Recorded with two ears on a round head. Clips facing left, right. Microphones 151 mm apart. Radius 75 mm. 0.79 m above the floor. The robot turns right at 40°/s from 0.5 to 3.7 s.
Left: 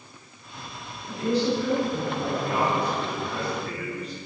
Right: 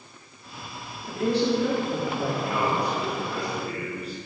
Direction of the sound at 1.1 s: 130° right.